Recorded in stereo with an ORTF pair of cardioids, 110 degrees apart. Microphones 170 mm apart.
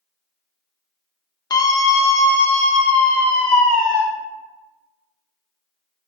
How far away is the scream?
About 0.8 m.